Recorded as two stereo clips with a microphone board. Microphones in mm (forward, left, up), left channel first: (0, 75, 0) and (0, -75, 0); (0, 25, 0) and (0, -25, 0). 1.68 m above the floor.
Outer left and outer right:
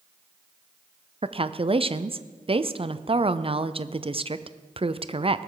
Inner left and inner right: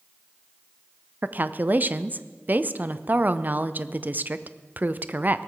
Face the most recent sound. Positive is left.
turn(degrees=-35)  # may be behind; listen again after turning